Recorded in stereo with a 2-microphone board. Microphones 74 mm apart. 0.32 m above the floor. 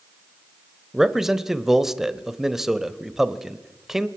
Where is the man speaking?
5° right (ahead or behind), 1.1 m.